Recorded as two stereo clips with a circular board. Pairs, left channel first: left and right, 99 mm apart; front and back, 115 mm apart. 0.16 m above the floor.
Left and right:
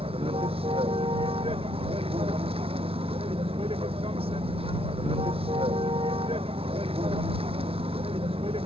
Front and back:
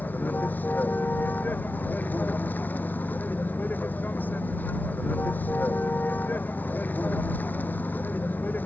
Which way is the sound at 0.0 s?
75° right.